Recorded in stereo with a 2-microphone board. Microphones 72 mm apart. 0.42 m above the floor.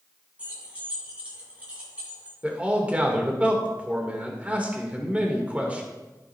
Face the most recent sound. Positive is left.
turn(degrees=-20)  # may be behind; listen again after turning